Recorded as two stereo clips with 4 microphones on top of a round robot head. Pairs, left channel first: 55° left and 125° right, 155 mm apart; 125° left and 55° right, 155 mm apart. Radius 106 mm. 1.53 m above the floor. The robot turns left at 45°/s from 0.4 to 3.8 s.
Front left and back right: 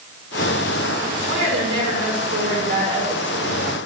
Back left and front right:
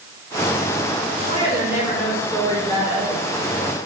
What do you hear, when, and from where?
1.3 s a woman speaking: 110° right, 5 m; by 3.7 s 140° left, 5 m